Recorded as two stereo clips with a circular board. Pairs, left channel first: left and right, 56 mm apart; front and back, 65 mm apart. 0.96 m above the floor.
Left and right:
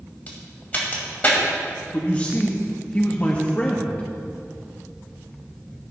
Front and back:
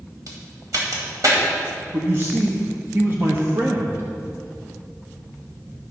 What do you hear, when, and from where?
0.3 s a crack: 150° left, 2 m
1.9 s a man speaking: 150° left, 0.9 m